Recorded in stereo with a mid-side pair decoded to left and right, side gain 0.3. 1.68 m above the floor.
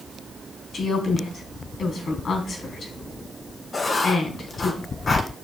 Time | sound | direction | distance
0.7 | a woman speaking | 70° left | 4 m
3.7 | writing | 55° left | 1.8 m